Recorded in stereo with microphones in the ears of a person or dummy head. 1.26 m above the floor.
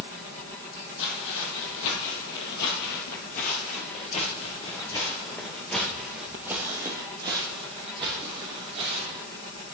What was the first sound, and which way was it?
Footsteps, 65° left (ahead or behind).